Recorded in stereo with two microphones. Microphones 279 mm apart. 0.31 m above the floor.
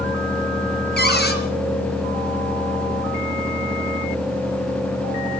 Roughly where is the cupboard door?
Left.